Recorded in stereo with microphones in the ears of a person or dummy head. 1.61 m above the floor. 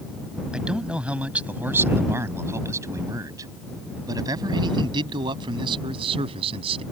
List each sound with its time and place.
0.5 s a man speaking: 5° right (ahead or behind); by 6.8 s 30° right (ahead or behind)